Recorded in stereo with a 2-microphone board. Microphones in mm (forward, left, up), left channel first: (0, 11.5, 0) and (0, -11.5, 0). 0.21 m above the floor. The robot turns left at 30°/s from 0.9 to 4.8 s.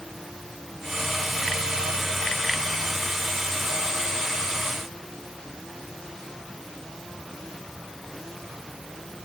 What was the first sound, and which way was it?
Only background noise.